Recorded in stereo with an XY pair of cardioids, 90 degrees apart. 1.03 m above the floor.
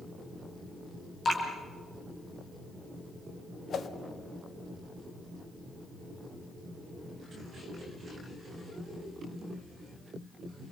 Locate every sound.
1.2 s dripping: 40° left, 5 m
3.7 s a whoosh: 60° left, 1.3 m